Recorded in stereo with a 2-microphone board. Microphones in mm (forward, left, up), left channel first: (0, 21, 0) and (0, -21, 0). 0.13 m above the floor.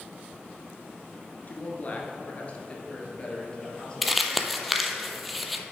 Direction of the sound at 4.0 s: Centre (ahead or behind).